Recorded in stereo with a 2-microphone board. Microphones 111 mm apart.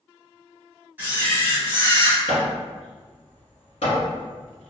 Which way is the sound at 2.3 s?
85° left.